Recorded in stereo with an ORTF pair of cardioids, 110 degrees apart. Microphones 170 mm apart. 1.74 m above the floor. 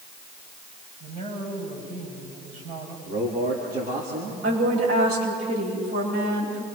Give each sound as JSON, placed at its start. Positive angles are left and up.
{"t": 1.0, "sound": "a man speaking", "azimuth_deg": -60, "distance_m": 9.5}
{"t": 3.1, "sound": "a man speaking", "azimuth_deg": -55, "distance_m": 4.0}
{"t": 4.4, "sound": "a woman speaking", "azimuth_deg": -65, "distance_m": 9.5}